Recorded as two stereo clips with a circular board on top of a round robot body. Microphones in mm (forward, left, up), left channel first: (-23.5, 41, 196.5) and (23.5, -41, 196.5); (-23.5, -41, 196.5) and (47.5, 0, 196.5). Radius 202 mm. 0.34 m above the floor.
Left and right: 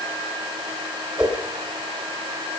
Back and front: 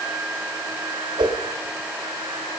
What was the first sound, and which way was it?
A whoosh, 20° left.